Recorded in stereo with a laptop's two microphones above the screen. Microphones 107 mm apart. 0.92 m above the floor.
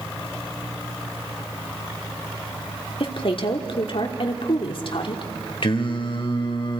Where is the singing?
55° left (ahead or behind), 1.7 m.